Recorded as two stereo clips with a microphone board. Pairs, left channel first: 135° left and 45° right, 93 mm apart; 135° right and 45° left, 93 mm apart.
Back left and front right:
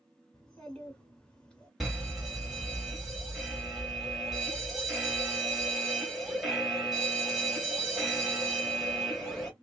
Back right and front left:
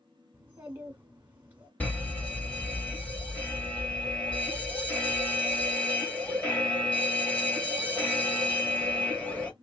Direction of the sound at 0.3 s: 70° left.